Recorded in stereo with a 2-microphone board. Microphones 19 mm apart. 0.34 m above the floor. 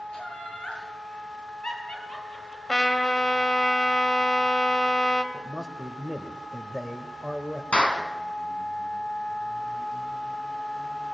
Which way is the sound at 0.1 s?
65° left (ahead or behind).